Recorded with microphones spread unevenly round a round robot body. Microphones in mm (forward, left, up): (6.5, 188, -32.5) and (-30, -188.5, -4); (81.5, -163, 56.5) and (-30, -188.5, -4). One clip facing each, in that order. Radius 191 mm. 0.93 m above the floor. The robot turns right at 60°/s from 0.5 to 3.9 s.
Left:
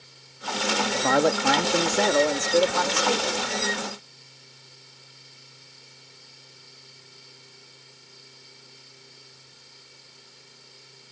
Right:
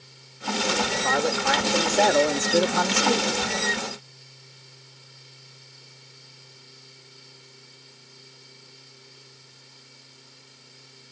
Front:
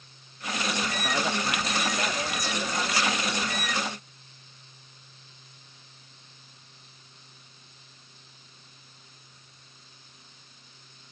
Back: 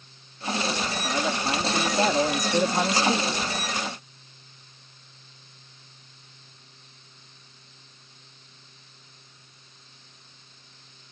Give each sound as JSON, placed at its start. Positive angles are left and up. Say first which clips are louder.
{"t": 0.9, "sound": "a man speaking", "louder": "left 3 dB, back 2 dB", "azimuth_deg": 100}